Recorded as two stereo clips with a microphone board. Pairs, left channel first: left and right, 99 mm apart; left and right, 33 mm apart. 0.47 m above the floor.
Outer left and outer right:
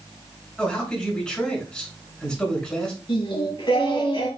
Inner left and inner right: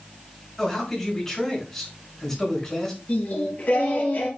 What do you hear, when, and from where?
0.6 s a man speaking: 10° left (ahead or behind), 4.5 m
3.1 s singing: 55° left (ahead or behind), 4 m